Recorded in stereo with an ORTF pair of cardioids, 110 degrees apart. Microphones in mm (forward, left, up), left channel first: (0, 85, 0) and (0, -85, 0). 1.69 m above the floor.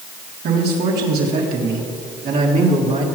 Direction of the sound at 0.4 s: 70° right.